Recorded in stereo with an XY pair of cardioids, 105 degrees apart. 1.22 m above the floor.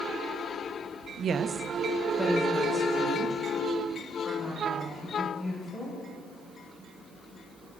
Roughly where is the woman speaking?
Ahead right.